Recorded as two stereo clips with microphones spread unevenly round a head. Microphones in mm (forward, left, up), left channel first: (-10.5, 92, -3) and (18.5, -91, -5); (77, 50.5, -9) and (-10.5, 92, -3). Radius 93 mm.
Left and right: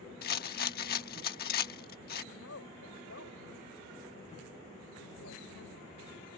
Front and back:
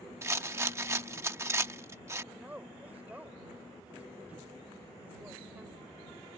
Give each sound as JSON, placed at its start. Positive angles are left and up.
{"t": 0.2, "sound": "a rattle", "azimuth_deg": 105}
{"t": 2.3, "sound": "a woman speaking", "azimuth_deg": 80}